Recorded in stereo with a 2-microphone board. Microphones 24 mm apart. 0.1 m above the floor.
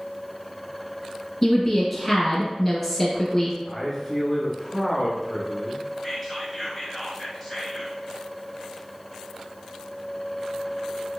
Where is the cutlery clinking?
I don't hear cutlery clinking.